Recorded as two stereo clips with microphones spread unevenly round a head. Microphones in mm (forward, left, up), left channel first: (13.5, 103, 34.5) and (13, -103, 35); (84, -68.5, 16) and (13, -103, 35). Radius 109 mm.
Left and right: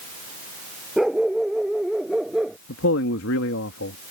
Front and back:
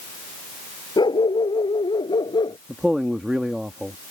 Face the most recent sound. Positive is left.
turn(degrees=125)